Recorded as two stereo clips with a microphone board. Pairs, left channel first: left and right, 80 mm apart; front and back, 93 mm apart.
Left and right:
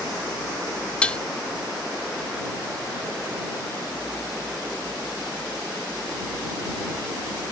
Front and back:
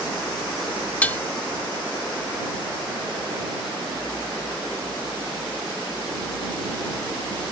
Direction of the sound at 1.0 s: 45° left.